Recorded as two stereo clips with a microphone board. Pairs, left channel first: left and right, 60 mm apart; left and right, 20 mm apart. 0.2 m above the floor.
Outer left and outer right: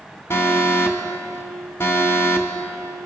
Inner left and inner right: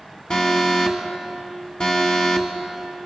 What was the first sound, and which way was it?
An alarm, 45° left (ahead or behind).